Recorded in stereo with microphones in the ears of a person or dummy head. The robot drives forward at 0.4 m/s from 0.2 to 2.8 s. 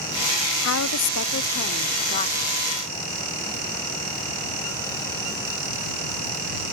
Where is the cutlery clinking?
I don't hear cutlery clinking.